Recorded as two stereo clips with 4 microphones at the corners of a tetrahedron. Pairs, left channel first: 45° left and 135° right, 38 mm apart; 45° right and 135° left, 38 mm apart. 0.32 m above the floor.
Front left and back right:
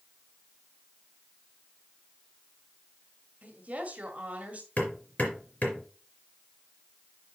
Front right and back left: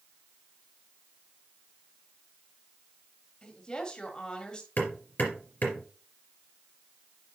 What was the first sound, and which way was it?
A woman speaking, 105° right.